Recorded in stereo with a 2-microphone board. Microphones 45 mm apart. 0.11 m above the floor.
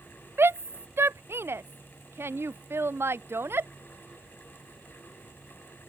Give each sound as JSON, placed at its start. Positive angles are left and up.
{"t": 0.4, "sound": "a shout", "side_deg": -65}